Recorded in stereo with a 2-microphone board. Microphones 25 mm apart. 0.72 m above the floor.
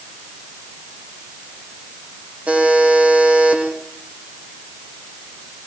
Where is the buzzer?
60° right (ahead or behind), 7 m.